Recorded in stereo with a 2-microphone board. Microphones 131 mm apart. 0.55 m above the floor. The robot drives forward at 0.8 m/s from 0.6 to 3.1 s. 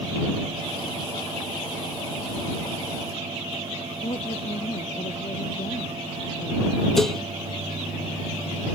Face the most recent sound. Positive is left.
turn(degrees=5)  # may be behind; listen again after turning